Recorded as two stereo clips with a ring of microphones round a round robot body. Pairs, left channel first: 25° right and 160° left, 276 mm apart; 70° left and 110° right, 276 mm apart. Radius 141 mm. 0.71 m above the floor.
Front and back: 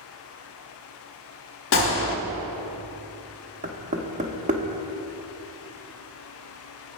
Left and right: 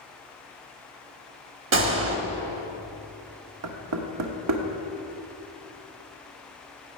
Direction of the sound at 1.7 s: 65° right.